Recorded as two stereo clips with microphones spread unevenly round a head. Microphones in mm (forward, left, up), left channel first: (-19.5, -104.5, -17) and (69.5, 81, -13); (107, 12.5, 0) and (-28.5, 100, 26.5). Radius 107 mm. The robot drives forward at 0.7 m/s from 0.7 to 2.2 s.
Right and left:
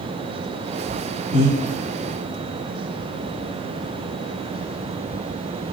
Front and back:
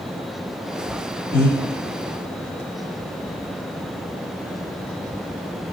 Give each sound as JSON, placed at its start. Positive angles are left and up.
{"t": 1.3, "sound": "breathing", "azimuth_deg": 45, "distance_m": 1.6}